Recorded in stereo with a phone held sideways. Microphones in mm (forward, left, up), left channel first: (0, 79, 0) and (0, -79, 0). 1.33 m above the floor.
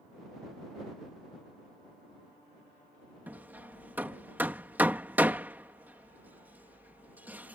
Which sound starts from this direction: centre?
Hammering, at 3.3 s.